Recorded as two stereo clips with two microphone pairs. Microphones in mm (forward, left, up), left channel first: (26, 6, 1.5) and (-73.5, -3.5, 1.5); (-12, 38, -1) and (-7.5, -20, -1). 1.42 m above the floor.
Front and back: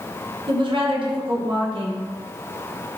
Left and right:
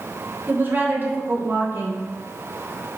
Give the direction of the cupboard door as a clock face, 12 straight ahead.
I don't hear a cupboard door.